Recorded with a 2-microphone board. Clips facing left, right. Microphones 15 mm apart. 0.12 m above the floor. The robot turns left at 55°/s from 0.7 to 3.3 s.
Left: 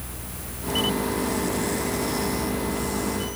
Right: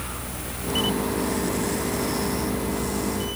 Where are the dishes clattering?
No dishes clattering in this recording.